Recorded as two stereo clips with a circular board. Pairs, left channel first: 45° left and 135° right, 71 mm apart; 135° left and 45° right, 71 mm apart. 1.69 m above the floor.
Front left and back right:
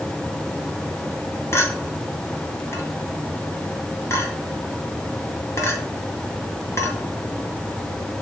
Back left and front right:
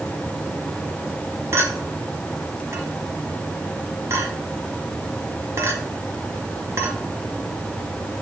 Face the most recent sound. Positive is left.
turn(degrees=0)